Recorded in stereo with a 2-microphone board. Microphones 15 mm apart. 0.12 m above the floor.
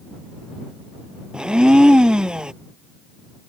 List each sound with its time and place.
1.3 s a blender: 60° right (ahead or behind)